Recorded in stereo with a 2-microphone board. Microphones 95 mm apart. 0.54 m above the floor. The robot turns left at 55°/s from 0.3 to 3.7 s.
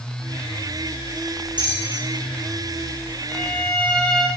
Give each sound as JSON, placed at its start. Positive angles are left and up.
{"t": 1.6, "sound": "a bell", "side_deg": -50, "distance_m": 8.5}
{"t": 3.3, "sound": "a violin", "side_deg": -20, "distance_m": 8.0}